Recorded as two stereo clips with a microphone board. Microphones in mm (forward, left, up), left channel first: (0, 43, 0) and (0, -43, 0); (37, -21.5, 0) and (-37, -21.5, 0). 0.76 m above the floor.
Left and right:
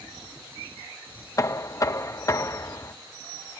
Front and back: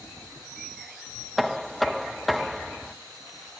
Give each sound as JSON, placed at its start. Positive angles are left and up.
{"t": 1.4, "sound": "knocking", "azimuth_deg": 90}